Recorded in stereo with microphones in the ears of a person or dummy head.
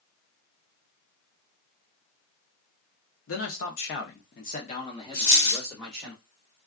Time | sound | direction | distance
3.3 | a man speaking | 75° left (ahead or behind) | 1.0 m
5.1 | a dropped coin | 55° left (ahead or behind) | 1.5 m